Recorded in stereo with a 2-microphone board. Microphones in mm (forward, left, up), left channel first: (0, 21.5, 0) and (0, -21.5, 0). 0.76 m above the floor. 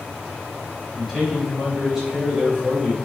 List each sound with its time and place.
0.9 s a man speaking: 5° right (ahead or behind), 3 m